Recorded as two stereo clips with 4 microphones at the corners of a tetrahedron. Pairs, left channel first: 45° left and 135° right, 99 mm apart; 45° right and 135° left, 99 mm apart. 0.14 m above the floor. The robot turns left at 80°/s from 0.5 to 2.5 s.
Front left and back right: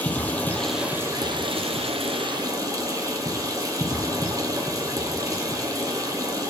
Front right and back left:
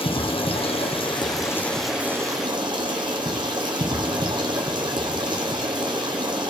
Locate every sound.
0.0 s running water: 30° right, 1.2 m; by 6.5 s 170° left, 1.2 m